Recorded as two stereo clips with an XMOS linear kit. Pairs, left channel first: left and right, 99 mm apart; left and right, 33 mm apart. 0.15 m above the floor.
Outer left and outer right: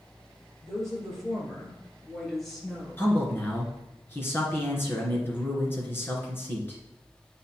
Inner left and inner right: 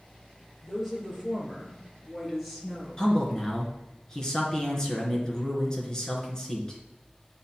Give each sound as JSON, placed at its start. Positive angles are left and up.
{"t": 0.6, "sound": "a woman speaking", "side_deg": 0, "distance_m": 3.5}
{"t": 3.0, "sound": "a man speaking", "side_deg": 20, "distance_m": 2.0}